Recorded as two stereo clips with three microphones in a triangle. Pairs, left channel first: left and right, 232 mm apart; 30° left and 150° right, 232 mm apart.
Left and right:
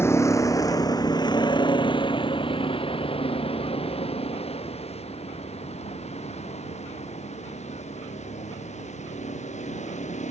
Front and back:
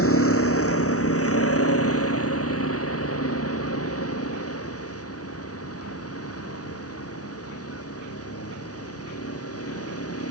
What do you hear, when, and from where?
0.0 s a vehicle: 10° left; by 10.3 s 30° left